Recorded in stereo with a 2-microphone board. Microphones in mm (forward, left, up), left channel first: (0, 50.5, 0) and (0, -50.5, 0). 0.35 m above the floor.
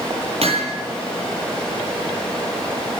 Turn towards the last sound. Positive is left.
turn(degrees=-70)  # may be behind; listen again after turning